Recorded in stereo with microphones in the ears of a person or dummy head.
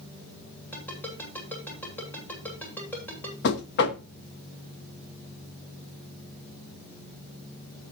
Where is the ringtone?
10° left (ahead or behind), 7.5 m.